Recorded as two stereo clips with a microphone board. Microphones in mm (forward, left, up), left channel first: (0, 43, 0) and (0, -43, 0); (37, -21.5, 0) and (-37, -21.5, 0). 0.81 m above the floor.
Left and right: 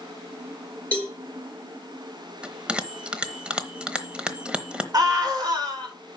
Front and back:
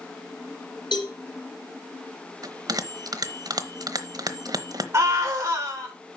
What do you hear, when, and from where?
0.9 s a cowbell: 15° left, 4.5 m
2.4 s a bell: 165° right, 0.9 m
4.9 s a scream: 130° right, 4 m